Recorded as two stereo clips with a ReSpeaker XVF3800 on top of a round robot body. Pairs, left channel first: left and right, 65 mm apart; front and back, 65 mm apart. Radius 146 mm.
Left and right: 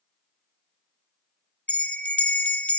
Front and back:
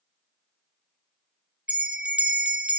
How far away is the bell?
About 1.3 m.